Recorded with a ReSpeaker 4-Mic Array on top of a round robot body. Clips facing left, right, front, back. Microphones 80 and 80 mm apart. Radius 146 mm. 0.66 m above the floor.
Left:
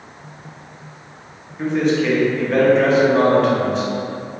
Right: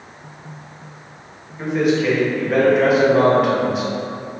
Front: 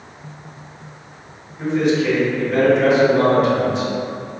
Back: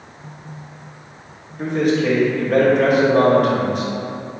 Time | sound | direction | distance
1.6 | a man speaking | 170° right | 1.0 m